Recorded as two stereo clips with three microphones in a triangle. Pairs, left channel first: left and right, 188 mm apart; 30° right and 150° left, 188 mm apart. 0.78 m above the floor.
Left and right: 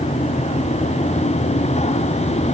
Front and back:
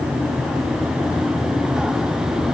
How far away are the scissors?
No scissors in this recording.